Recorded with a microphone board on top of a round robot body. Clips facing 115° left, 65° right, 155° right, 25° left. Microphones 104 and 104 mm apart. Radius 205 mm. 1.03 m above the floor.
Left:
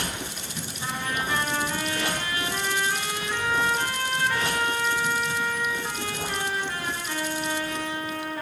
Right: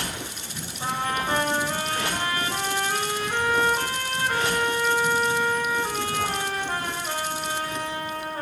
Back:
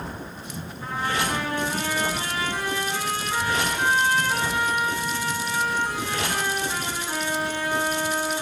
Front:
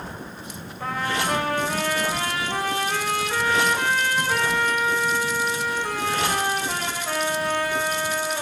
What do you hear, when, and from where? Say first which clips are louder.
0.8 s a trumpet: right 4 dB, front 1 dB; 10° right, 3 m